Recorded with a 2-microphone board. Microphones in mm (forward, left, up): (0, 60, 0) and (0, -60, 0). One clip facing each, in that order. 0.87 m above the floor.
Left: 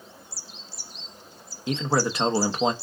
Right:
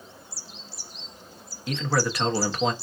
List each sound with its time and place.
1.7 s a man speaking: 25° left (ahead or behind), 0.7 m